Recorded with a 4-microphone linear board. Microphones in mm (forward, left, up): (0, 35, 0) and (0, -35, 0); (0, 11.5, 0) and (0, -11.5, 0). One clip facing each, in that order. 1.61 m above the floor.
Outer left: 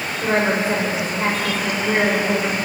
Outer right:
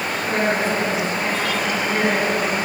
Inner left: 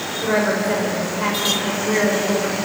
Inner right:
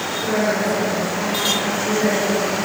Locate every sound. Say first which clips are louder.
0.2 s a woman speaking: outer left 3 dB, inner left 1 dB; 55° left (ahead or behind), 5.5 m